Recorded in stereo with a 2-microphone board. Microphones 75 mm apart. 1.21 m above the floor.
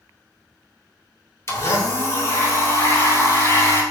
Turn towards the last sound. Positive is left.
turn(degrees=35)  # may be behind; listen again after turning